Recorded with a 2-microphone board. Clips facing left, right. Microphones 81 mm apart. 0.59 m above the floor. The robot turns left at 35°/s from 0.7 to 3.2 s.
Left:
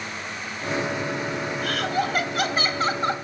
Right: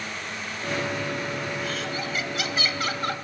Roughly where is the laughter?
Left.